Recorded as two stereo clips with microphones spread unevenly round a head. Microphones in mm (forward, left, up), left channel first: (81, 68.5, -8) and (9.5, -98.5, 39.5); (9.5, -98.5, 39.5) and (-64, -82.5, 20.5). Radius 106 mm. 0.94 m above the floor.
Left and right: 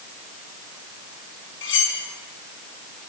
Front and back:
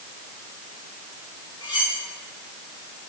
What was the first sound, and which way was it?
Cutlery clinking, 55° left.